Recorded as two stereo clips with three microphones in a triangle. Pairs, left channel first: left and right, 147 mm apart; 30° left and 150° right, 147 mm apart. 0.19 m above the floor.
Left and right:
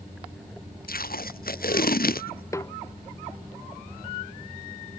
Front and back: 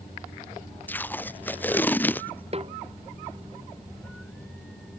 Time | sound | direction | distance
0.9 | tape being pulled | 110° left | ?
2.5 | a snare drum | 160° left | ?